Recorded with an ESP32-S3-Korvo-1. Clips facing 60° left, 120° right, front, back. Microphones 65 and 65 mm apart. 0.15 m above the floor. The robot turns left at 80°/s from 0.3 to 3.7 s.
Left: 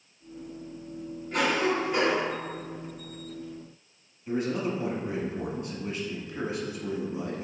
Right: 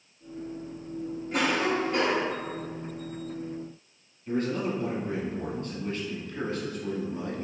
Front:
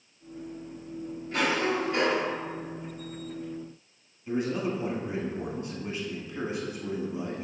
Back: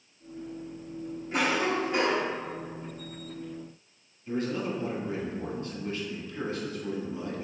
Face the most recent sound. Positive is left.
turn(degrees=15)